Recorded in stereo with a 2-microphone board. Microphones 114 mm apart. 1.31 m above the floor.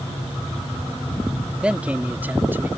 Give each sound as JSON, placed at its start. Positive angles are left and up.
{"t": 1.6, "sound": "a man speaking", "side_deg": -10}